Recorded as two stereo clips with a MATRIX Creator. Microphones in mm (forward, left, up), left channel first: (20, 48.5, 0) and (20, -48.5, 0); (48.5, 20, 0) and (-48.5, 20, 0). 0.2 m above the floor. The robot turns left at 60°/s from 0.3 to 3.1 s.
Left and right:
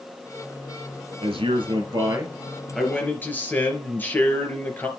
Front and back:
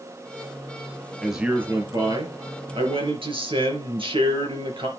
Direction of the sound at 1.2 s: 85° right.